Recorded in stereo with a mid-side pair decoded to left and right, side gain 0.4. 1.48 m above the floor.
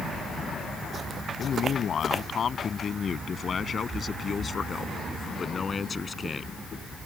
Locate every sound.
1.4 s a man speaking: 60° left; by 6.6 s 40° left